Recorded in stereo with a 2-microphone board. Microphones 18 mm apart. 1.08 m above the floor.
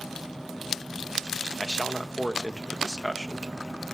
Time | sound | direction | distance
1.6 | a man speaking | 25° left (ahead or behind) | 0.8 m